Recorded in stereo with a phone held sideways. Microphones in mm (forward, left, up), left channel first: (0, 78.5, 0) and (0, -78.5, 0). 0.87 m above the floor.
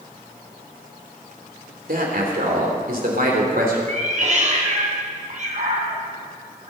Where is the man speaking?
65° right (ahead or behind), 3 m.